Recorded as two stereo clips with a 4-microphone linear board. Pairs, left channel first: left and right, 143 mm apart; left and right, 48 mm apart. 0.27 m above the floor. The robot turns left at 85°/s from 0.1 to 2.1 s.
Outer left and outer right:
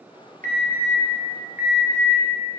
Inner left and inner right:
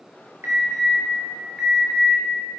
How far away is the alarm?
About 2.5 m.